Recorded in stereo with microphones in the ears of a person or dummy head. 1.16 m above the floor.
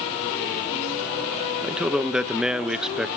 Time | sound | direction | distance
1.6 | a man speaking | 5° right (ahead or behind) | 0.8 m